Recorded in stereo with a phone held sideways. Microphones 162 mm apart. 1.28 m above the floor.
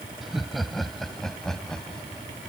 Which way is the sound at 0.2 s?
Centre (ahead or behind).